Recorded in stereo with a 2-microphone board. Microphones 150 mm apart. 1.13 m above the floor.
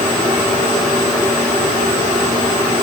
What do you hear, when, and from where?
Only background noise.